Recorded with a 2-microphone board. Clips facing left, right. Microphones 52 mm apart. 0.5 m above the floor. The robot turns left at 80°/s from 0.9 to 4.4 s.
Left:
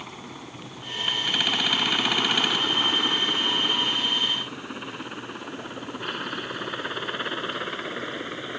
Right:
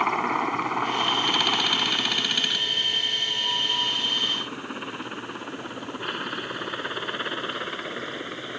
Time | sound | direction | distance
0.0 | a helicopter | 60° right (ahead or behind) | ?